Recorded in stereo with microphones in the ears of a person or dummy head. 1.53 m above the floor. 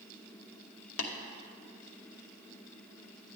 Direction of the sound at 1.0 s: 70° left (ahead or behind).